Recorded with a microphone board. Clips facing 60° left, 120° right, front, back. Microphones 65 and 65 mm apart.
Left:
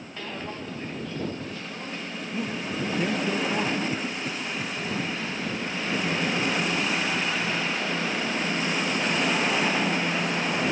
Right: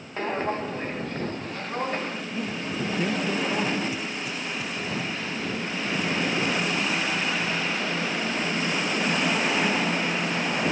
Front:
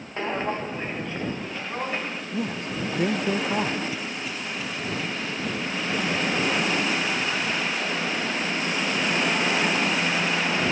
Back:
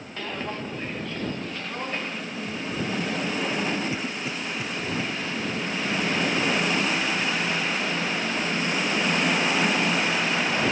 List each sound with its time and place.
0.2 s footsteps: 65° right; by 2.2 s 80° right
2.3 s a man speaking: 25° right
3.9 s a cough: 110° left